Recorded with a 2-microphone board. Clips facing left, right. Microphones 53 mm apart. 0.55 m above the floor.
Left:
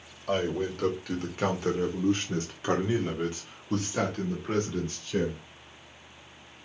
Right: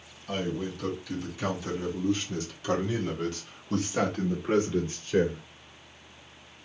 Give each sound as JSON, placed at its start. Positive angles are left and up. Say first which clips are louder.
{"t": 0.3, "sound": "a man speaking", "louder": "left 4 dB", "side_deg": 65, "distance_m": 2.0}